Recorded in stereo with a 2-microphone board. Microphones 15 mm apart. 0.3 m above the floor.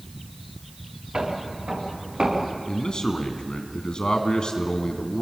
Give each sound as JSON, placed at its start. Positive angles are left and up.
{"t": 1.1, "sound": "footsteps", "side_deg": -65, "distance_m": 8.0}
{"t": 2.7, "sound": "a man speaking", "side_deg": 60, "distance_m": 3.0}